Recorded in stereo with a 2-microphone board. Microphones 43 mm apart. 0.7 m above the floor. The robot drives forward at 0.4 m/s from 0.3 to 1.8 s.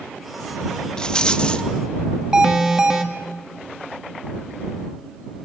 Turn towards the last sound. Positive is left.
turn(degrees=-10)  # may be behind; listen again after turning